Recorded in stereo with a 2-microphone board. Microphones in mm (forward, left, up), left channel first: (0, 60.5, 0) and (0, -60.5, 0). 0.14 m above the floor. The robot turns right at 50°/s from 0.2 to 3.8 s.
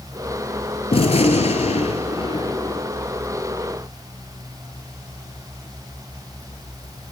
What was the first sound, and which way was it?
A gunshot, 60° left.